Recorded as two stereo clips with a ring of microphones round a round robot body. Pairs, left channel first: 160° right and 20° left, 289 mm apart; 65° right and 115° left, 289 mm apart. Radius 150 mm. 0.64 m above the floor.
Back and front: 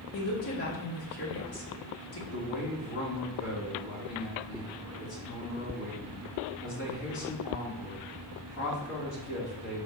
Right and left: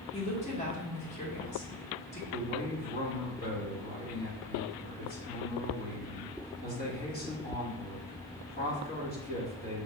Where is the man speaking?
120° right, 1.9 m.